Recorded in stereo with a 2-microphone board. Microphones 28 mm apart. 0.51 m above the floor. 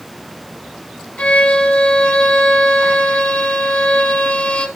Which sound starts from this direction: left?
A violin, at 1.2 s.